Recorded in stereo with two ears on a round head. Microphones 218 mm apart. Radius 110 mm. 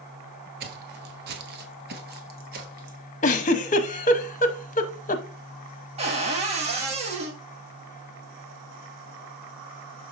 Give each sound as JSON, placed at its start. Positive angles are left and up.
{"t": 0.6, "sound": "footsteps", "side_deg": -40, "distance_m": 1.4}
{"t": 3.2, "sound": "a giggle", "side_deg": 30, "distance_m": 0.8}
{"t": 6.0, "sound": "a cupboard door", "side_deg": -25, "distance_m": 1.8}